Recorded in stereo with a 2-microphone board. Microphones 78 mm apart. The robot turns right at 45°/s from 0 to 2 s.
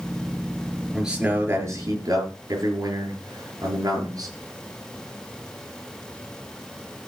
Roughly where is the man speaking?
Behind.